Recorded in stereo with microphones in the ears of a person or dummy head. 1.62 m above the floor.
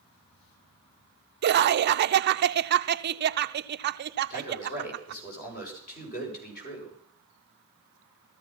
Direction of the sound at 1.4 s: 60° right (ahead or behind).